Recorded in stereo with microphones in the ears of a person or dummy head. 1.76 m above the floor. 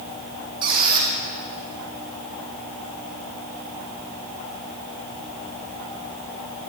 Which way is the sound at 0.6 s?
25° right (ahead or behind).